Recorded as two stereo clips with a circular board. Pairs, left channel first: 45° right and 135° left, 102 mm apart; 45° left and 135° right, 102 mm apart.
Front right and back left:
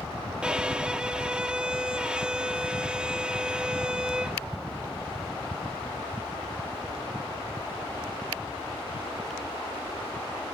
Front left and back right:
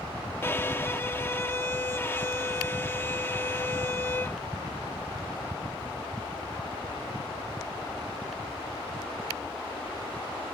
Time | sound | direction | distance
0.4 | a violin | 65° left | ?